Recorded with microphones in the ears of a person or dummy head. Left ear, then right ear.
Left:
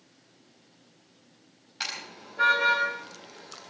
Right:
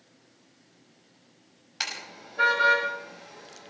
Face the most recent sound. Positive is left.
turn(degrees=-10)  # may be behind; listen again after turning